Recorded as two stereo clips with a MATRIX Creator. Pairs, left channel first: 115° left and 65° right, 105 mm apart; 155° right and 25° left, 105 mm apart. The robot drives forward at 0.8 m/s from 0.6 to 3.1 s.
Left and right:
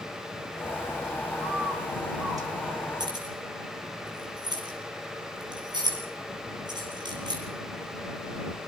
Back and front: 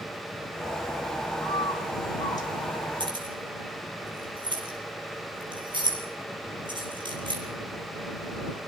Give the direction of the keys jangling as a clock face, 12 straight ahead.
1 o'clock.